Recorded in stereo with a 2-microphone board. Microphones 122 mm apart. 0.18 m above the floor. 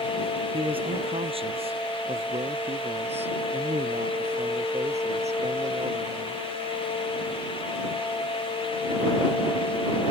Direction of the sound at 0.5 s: 50° right (ahead or behind).